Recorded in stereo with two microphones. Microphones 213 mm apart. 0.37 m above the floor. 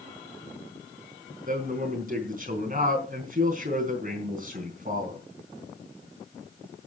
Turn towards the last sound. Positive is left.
turn(degrees=-45)  # may be behind; listen again after turning